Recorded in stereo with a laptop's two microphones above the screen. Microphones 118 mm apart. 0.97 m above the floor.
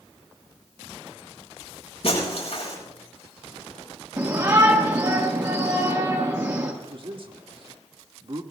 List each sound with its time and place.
2.0 s breaking glass: 60° left (ahead or behind), 7 m
4.2 s a shout: 30° right (ahead or behind), 1.4 m
6.8 s a man speaking: 50° right (ahead or behind), 1.6 m